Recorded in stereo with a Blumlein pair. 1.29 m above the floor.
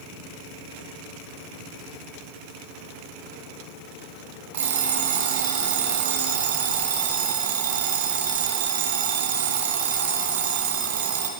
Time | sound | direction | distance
4.5 | an alarm clock | 65° right | 3 m